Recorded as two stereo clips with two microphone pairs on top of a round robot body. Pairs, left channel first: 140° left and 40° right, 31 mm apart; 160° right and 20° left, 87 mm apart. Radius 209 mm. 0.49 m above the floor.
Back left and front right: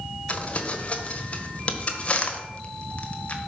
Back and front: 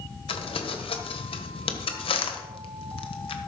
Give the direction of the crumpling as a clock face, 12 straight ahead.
6 o'clock.